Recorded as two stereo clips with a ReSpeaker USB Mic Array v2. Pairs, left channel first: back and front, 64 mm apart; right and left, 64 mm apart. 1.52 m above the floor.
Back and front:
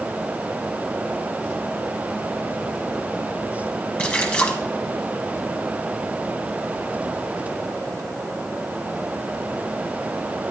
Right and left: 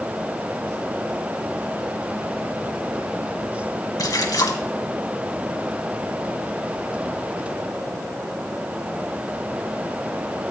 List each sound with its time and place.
4.0 s a splash: 115° right, 1.3 m